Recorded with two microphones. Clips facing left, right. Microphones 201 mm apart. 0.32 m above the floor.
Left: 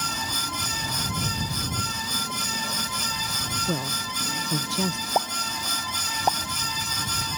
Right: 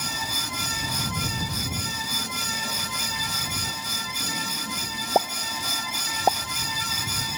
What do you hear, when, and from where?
3.7 s a man speaking: 85° left
5.2 s a pop: 30° right (ahead or behind)